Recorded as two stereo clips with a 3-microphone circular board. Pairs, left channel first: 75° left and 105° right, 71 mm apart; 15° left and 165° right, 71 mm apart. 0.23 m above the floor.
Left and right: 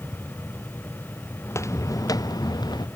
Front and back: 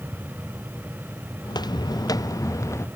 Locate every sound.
1.4 s footsteps: 20° left; by 2.9 s 60° left